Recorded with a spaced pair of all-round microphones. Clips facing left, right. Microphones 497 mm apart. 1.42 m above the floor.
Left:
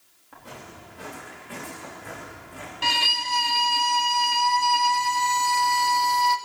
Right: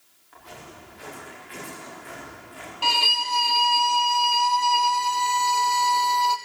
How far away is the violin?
About 0.9 m.